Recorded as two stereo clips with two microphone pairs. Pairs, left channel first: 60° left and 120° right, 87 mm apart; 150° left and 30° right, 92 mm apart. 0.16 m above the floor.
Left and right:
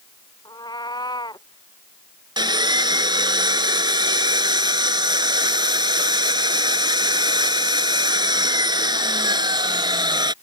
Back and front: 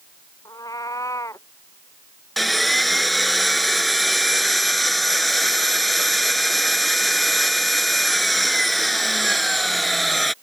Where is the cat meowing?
100° left; by 1.5 s 95° left.